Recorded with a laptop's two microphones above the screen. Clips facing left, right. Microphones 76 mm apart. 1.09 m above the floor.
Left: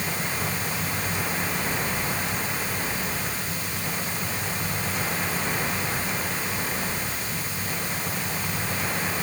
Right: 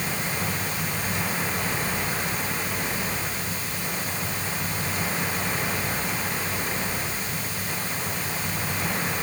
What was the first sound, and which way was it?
Only background noise.